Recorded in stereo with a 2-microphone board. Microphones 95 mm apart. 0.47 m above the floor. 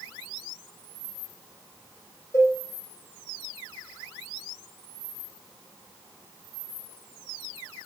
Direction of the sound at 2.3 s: 35° left (ahead or behind).